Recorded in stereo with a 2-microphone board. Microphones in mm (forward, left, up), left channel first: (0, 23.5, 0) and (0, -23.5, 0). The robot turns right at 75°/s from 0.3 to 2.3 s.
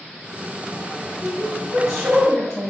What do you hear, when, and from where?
1.2 s a woman speaking: 20° right (ahead or behind), 1.0 m; by 2.7 s 15° left (ahead or behind), 1.0 m